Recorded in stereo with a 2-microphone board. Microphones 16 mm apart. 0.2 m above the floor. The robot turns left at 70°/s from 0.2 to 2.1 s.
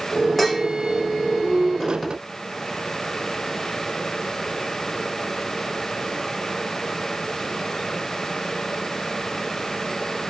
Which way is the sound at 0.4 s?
10° left (ahead or behind).